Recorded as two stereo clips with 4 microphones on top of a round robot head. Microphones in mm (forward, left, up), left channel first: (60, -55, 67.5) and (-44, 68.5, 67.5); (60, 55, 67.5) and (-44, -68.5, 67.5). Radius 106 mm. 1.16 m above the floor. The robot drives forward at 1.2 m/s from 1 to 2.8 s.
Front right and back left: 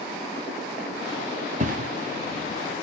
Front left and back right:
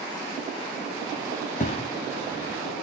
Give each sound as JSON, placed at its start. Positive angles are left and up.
{"t": 1.6, "sound": "a thud", "azimuth_deg": 90, "distance_m": 1.4}